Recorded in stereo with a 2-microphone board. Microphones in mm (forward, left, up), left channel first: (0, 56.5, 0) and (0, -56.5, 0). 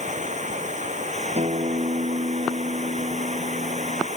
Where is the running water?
80° right.